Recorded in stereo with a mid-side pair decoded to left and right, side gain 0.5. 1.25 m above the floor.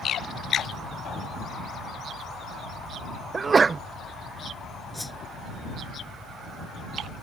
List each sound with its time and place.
3.3 s a sneeze: 30° right
4.9 s a whoosh: 10° left